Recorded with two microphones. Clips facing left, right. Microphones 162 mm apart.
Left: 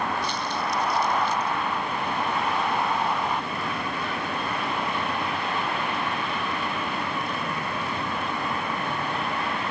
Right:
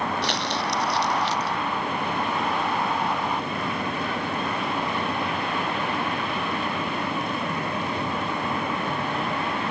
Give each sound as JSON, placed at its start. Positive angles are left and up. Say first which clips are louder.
{"t": 0.2, "sound": "crumpling", "louder": "right 2 dB", "side_deg": -80}